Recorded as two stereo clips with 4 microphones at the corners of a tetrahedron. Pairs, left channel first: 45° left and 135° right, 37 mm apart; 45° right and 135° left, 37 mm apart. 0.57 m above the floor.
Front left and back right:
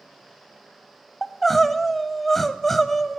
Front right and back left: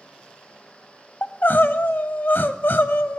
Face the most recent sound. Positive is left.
turn(degrees=-35)